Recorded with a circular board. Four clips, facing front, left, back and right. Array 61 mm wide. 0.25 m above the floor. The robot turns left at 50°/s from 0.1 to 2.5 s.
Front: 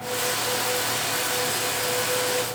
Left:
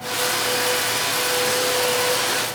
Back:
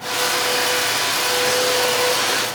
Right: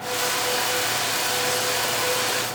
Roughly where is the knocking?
I don't hear knocking.